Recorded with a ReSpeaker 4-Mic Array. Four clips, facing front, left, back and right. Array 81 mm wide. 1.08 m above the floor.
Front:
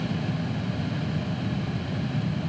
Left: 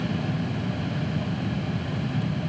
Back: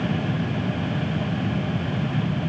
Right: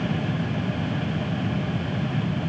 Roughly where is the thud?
I don't hear a thud.